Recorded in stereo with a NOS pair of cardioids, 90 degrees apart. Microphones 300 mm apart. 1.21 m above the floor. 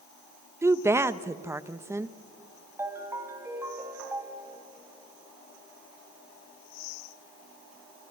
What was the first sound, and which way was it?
A woman speaking, 10° right.